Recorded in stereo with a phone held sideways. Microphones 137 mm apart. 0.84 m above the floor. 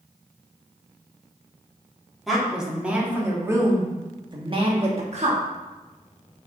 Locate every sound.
2.3 s a woman speaking: centre (ahead or behind), 1.9 m; by 5.4 s 55° right (ahead or behind), 1.5 m